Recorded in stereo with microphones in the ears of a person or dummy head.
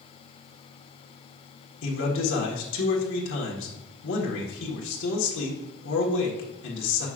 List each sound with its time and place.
1.8 s a man speaking: 65° left (ahead or behind), 1.6 m